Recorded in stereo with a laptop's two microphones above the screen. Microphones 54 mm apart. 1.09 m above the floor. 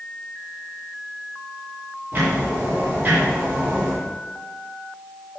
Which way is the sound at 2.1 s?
35° right (ahead or behind).